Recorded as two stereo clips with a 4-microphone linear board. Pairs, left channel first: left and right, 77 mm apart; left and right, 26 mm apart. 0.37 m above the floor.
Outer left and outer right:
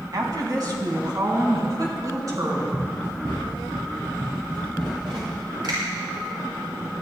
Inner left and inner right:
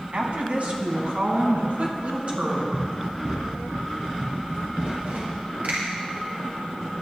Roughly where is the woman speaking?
Right.